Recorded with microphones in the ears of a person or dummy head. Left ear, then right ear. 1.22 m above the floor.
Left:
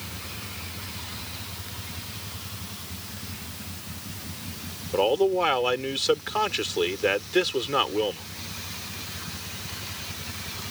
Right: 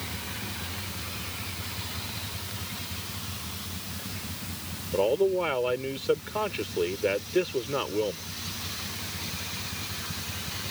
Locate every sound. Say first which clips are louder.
4.9 s a man speaking: left 2 dB; 45° left (ahead or behind)